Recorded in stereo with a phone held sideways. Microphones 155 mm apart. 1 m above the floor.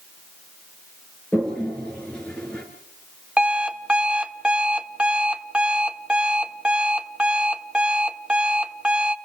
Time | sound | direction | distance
1.3 | a toilet flushing | 5° left (ahead or behind) | 4.5 m
3.4 | an alarm clock | 5° right (ahead or behind) | 1.0 m